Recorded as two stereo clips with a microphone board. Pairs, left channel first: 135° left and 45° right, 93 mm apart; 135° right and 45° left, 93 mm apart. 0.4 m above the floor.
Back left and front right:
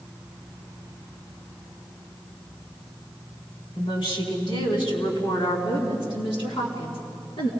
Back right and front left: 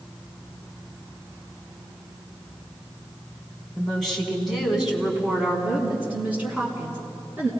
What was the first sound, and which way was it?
A woman speaking, 140° left.